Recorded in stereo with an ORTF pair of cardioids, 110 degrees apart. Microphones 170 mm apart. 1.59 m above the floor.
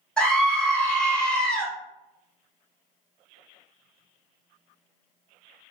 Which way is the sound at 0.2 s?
5° left.